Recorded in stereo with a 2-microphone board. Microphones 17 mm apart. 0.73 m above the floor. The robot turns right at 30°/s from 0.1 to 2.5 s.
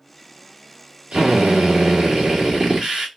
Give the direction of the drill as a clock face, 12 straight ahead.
3 o'clock.